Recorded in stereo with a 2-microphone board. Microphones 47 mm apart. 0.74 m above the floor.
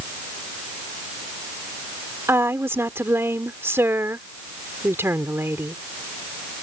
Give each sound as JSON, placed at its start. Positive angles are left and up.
{"t": 2.3, "sound": "a woman speaking", "side_deg": -65}